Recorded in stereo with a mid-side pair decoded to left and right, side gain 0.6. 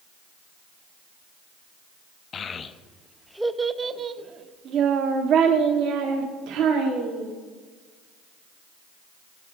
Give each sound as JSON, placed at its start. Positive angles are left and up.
{"t": 2.3, "sound": "a child speaking", "azimuth_deg": 40, "distance_m": 0.8}